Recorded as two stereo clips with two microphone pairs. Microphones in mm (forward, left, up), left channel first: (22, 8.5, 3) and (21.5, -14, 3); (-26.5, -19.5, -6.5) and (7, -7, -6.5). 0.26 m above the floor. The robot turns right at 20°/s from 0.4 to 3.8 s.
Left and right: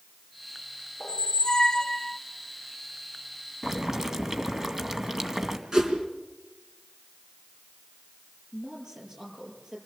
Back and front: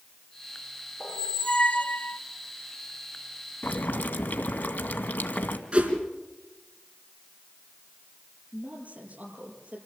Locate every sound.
1.0 s a squeak: 140° left, 0.8 m; by 2.2 s 160° left, 0.8 m
3.6 s boiling: 155° right, 2.0 m
5.7 s a whoosh: 35° right, 3.5 m
8.5 s a woman speaking: 30° right, 6.5 m